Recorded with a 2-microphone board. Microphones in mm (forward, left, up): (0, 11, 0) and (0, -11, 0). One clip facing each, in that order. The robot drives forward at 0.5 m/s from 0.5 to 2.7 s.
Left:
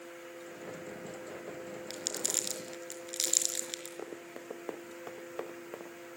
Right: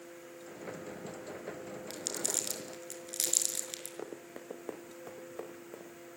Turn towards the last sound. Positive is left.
turn(degrees=55)  # may be behind; listen again after turning